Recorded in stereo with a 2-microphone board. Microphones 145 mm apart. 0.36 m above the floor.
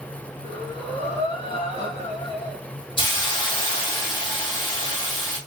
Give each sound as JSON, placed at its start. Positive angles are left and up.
{"t": 0.4, "sound": "breathing", "side_deg": 40, "distance_m": 0.9}
{"t": 3.0, "sound": "a hiss", "side_deg": 35, "distance_m": 1.7}